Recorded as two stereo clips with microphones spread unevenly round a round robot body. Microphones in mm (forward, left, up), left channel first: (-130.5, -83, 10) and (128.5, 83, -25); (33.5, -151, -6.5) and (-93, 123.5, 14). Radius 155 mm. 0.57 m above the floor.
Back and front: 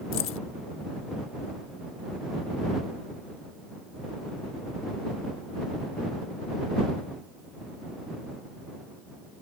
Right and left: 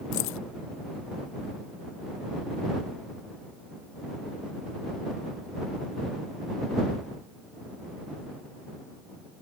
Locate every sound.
0.1 s keys jangling: 95° right